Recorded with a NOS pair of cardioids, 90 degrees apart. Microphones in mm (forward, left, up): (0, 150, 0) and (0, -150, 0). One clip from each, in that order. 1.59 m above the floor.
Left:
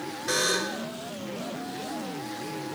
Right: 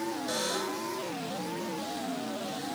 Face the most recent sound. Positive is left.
turn(degrees=50)